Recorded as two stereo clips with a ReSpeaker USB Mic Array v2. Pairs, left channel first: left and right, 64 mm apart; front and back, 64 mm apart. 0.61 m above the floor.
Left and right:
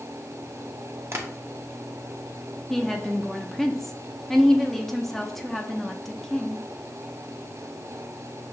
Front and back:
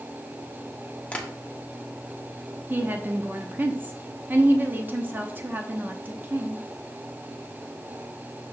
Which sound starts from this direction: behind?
A woman speaking, at 2.7 s.